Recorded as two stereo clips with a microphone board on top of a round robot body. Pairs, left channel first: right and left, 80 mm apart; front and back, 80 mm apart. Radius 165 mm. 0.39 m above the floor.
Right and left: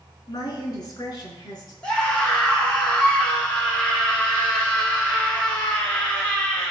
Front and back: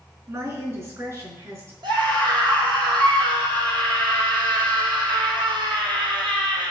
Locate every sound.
0.3 s a woman speaking: 130° right, 6 m
1.8 s a scream: 170° right, 3.5 m